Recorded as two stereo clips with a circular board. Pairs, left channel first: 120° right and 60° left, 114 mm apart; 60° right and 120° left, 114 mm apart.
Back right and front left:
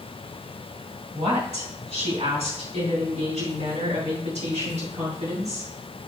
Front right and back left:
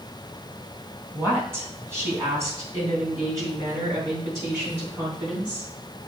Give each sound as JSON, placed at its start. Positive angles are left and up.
{"t": 1.1, "sound": "a woman speaking", "azimuth_deg": 50, "distance_m": 2.5}